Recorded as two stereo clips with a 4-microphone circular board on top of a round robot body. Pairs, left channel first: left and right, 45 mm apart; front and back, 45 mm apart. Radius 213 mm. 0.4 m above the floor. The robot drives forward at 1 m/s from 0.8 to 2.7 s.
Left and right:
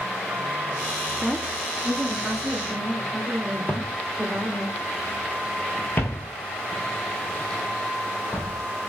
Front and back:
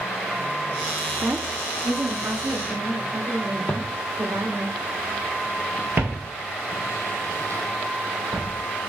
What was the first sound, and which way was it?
A woman speaking, 170° left.